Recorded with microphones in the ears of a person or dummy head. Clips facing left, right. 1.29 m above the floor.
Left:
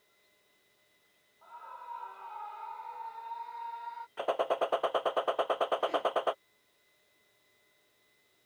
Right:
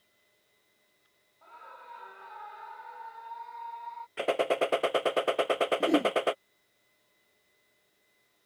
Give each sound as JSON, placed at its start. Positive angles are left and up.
{"t": 1.4, "sound": "a scream", "side_deg": -30}
{"t": 4.2, "sound": "a gunshot", "side_deg": -25}
{"t": 5.8, "sound": "a whoosh", "side_deg": -55}